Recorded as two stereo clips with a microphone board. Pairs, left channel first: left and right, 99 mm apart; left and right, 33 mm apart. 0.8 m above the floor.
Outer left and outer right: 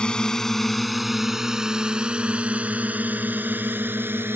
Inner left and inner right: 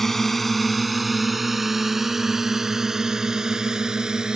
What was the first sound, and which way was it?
A drone, 10° left (ahead or behind).